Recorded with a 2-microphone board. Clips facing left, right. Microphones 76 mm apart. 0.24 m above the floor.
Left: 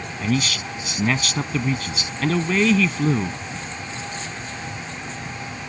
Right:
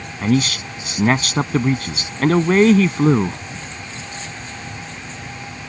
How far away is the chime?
No chime in this recording.